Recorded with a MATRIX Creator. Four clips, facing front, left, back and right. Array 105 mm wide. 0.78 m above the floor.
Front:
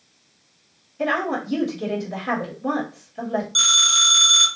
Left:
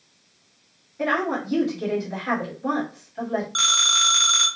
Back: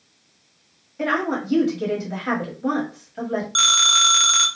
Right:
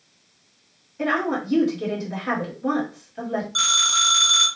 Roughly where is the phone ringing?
Behind.